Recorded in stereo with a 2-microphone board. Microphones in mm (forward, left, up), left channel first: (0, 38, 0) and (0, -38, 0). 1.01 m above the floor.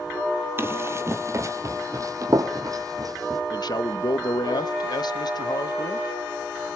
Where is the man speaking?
60° left (ahead or behind), 1.1 m.